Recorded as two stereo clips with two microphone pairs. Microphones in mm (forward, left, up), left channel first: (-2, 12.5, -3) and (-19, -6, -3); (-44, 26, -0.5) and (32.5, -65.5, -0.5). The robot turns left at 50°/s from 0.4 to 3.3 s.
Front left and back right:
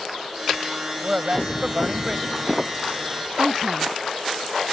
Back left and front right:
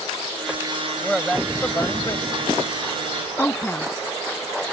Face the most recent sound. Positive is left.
turn(degrees=-160)